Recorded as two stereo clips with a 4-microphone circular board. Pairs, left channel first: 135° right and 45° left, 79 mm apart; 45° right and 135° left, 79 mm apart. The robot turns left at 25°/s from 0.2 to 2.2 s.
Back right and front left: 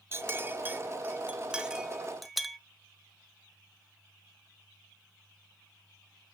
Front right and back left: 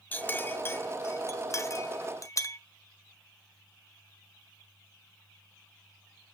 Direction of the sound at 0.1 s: 10° left.